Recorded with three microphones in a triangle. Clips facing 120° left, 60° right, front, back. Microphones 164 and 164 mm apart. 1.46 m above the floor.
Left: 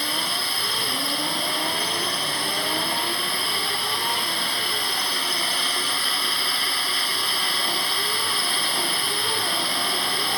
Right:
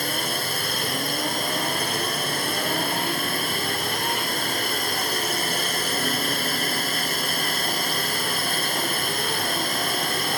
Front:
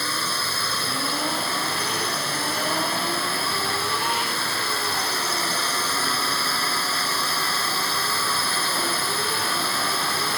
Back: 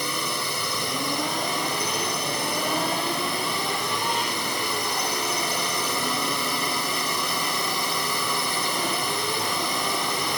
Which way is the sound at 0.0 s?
105° right.